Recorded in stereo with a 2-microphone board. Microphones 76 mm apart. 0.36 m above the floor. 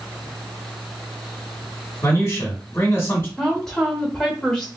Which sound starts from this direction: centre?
A woman speaking, at 3.4 s.